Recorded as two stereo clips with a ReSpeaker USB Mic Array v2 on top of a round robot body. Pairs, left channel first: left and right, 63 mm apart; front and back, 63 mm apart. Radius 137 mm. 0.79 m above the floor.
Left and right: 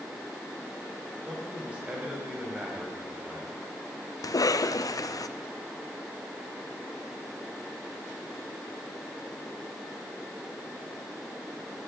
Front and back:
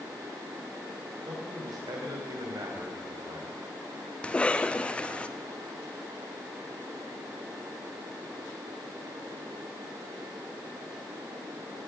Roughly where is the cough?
Left.